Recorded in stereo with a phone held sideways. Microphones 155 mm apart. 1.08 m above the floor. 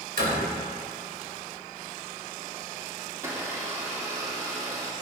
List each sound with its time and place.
0.2 s a door slam: 85° right, 3.5 m
3.1 s a blender: 20° right (ahead or behind), 1.7 m